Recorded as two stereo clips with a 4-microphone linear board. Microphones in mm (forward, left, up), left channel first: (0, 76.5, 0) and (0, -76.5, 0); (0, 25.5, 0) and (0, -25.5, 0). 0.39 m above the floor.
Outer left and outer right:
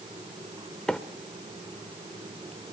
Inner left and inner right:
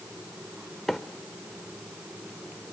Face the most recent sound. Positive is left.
turn(degrees=5)  # may be behind; listen again after turning